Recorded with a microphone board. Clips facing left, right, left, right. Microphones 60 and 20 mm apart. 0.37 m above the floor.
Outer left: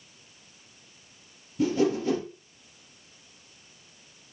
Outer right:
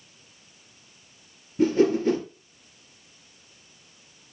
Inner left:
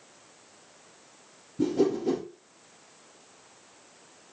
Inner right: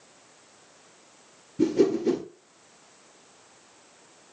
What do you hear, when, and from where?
1.6 s a whoosh: 45° right (ahead or behind), 3 m